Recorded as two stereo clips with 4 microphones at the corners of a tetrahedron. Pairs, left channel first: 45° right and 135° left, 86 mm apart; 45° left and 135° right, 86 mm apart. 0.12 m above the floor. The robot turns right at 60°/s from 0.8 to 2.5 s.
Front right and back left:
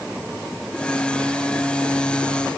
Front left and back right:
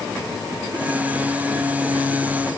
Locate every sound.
Only background noise.